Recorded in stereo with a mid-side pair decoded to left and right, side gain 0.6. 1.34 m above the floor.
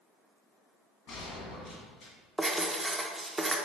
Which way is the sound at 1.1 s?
65° left.